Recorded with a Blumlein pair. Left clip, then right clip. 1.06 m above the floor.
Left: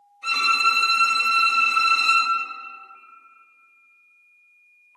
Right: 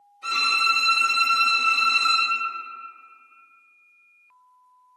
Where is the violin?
10° right, 1.3 m.